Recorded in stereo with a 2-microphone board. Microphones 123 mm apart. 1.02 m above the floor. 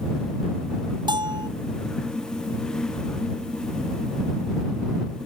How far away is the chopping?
No chopping in this recording.